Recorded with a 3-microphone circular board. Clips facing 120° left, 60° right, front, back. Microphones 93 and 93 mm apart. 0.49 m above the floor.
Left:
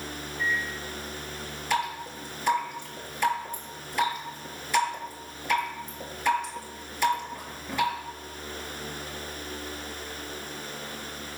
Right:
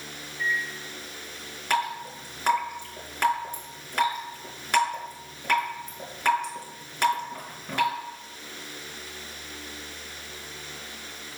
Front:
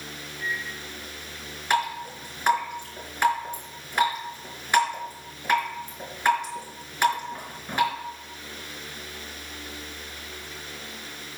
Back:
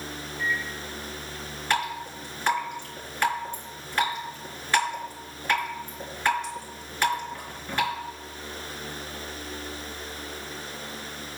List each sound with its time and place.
0.4 s a microwave: 40° right, 3 m
1.7 s dripping: 75° right, 3.5 m